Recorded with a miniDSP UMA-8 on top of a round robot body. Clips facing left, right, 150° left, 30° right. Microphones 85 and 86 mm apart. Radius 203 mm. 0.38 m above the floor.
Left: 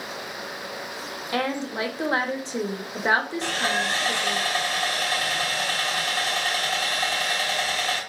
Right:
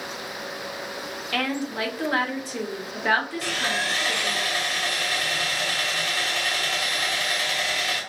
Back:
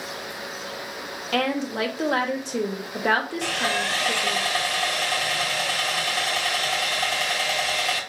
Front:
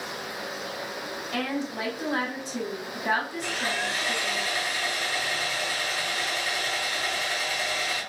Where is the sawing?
145° left, 3 m.